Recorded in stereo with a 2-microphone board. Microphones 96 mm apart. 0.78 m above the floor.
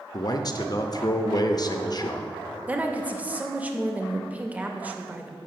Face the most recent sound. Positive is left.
turn(degrees=-15)  # may be behind; listen again after turning